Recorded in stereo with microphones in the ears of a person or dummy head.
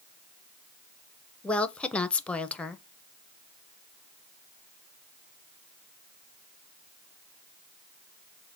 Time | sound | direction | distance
1.4 | a woman speaking | 10° left (ahead or behind) | 0.6 m